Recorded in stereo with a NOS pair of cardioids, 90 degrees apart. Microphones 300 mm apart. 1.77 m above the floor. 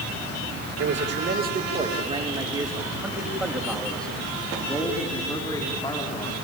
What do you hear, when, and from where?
0.8 s a man speaking: 45° right, 2.5 m; by 6.3 s 15° left, 5.5 m